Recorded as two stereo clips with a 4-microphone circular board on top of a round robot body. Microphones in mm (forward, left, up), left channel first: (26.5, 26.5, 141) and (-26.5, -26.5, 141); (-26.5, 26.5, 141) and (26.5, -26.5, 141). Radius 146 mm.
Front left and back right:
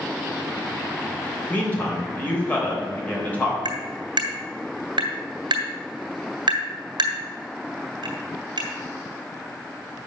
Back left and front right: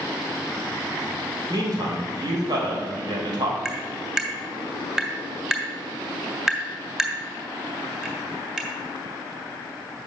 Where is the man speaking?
20° right, 3.5 m.